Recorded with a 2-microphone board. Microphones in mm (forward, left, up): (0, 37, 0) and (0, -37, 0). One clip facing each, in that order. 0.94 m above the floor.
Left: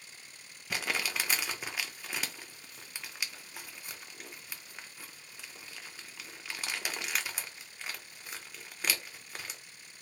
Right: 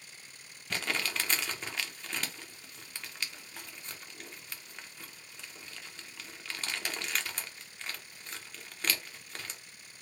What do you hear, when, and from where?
0.7 s crumpling: 5° left (ahead or behind), 0.6 m